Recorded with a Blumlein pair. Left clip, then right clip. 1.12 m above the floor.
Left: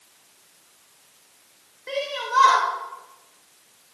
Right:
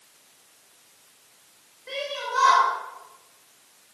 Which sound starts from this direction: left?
A shout, at 1.9 s.